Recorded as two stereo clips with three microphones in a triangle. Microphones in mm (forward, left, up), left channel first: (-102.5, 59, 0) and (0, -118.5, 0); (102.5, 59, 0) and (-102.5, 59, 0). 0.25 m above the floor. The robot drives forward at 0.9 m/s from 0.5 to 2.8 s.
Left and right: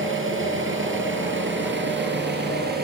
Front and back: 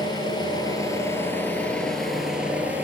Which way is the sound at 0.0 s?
70° right.